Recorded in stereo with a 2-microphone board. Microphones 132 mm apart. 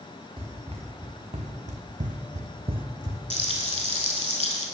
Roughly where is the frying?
Left.